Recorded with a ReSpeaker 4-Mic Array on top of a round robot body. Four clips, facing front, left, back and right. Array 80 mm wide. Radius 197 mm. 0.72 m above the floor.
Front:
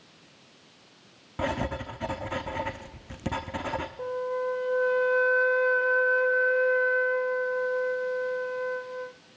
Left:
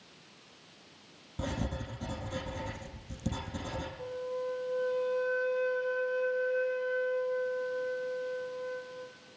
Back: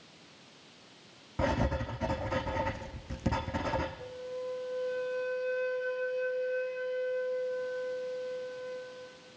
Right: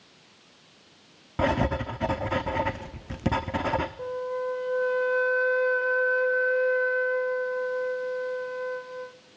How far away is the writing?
About 0.9 m.